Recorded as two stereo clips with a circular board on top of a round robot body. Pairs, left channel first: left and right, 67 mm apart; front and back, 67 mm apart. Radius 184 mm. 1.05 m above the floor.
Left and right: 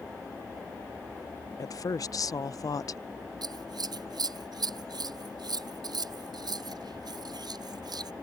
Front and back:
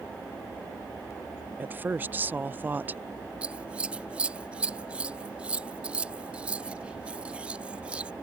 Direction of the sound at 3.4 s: 105° right.